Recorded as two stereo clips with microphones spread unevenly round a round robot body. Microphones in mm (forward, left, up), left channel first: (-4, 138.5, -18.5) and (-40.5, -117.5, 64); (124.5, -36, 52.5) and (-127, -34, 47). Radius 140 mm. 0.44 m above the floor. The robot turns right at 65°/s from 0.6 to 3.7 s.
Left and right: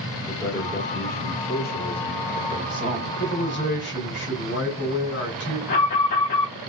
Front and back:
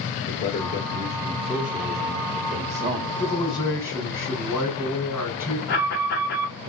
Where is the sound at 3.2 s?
50° left, 2 m; by 5.6 s 80° left, 2 m.